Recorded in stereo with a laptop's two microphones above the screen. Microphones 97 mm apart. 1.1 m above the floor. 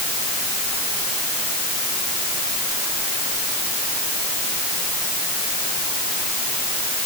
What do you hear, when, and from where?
Only background noise.